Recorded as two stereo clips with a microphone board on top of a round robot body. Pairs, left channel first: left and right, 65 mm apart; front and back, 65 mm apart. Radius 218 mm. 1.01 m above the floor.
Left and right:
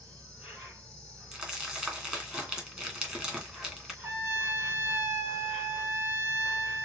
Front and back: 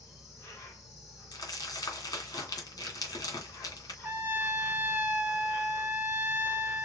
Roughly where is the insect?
Ahead right.